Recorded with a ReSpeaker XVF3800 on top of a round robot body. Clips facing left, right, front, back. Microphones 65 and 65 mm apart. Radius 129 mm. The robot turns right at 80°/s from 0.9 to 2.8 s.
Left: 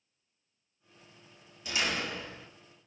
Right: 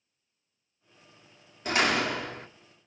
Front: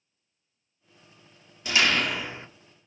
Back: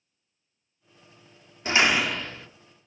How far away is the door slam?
About 1.5 m.